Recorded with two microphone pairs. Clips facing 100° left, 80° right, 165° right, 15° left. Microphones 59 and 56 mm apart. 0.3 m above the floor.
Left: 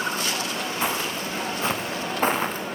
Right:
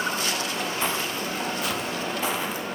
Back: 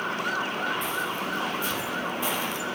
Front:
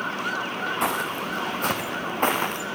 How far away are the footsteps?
About 1.3 m.